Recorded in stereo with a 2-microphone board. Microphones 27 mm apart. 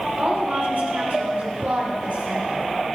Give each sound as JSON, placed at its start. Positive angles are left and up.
{"t": 0.2, "sound": "a woman speaking", "side_deg": -85, "distance_m": 4.5}